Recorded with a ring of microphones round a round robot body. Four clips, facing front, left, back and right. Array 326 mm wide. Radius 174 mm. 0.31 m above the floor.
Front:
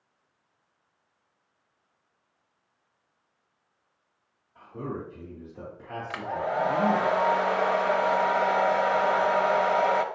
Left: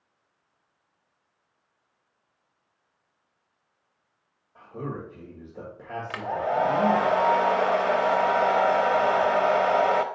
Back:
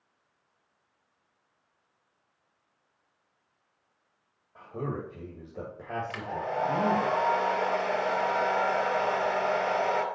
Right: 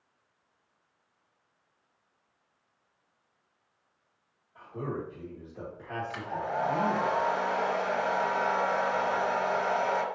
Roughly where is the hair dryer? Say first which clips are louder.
Left 8 dB, front 8 dB; left.